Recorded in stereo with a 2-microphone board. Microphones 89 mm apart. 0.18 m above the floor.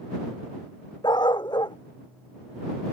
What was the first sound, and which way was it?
A dog barking, 55° left (ahead or behind).